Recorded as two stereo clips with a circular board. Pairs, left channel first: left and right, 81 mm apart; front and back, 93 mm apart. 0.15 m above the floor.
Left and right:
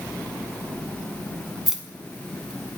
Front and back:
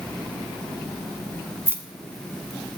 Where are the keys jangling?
170° right, 0.7 m; by 2.8 s 165° right, 1.1 m.